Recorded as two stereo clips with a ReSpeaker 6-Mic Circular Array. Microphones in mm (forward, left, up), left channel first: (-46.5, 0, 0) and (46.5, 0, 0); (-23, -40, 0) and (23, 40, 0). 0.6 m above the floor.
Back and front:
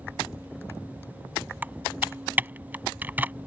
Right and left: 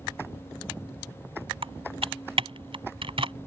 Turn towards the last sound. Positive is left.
turn(degrees=70)